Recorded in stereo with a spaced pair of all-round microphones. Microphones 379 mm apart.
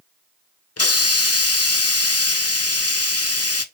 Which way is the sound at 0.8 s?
40° left (ahead or behind).